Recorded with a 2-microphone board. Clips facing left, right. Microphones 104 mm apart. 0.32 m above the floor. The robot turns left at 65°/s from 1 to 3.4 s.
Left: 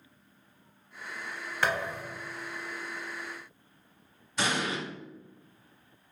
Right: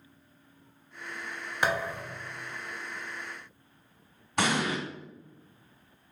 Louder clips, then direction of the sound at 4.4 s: Right 3 dB; 55° right (ahead or behind).